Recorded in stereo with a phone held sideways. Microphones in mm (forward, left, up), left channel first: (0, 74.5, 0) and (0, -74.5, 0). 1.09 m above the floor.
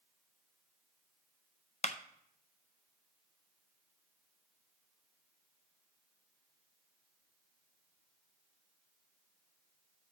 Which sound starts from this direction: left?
A clap, at 1.8 s.